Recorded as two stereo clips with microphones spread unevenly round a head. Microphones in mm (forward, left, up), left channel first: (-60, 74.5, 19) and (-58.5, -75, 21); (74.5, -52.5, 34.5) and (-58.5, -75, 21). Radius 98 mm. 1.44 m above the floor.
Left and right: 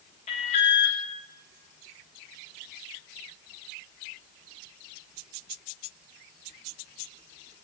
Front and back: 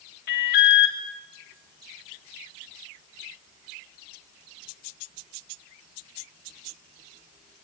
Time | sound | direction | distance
0.3 | an alarm | 30° left | 3 m